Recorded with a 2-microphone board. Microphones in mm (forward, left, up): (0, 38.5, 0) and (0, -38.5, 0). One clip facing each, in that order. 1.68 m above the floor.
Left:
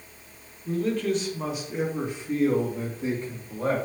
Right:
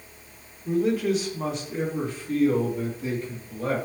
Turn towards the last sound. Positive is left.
turn(degrees=40)  # may be behind; listen again after turning